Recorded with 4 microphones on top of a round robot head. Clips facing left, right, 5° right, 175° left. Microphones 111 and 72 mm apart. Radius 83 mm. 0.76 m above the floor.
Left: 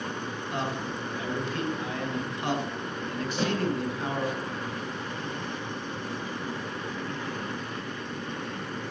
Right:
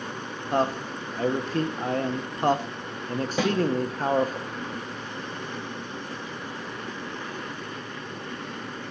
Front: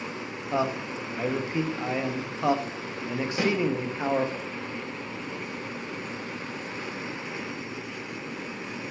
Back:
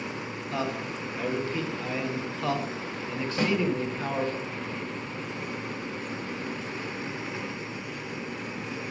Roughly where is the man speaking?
Ahead right.